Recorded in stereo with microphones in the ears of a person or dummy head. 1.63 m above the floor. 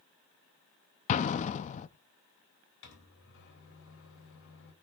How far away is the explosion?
About 0.7 m.